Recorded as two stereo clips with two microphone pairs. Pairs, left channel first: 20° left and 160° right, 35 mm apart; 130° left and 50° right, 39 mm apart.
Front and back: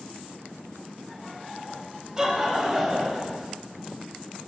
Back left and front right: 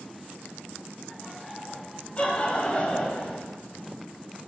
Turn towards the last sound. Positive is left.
turn(degrees=145)